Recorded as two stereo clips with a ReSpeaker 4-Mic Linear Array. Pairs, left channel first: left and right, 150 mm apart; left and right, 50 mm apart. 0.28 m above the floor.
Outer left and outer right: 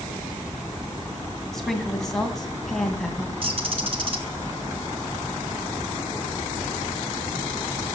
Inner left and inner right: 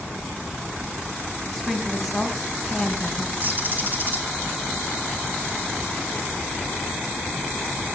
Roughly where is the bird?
Right.